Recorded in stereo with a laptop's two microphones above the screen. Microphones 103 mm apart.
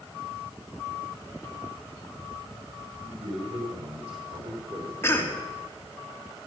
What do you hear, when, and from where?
3.0 s a man speaking: 80° right, 4 m; by 4.9 s 55° right (ahead or behind), 3 m
5.0 s a cough: 25° left (ahead or behind), 2 m